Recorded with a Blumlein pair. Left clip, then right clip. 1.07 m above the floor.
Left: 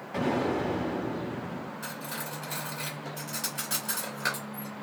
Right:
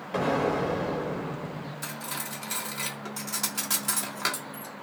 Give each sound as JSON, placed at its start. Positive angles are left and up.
{"t": 0.1, "sound": "an explosion", "azimuth_deg": -55, "distance_m": 1.4}
{"t": 1.8, "sound": "cutlery clinking", "azimuth_deg": -40, "distance_m": 1.2}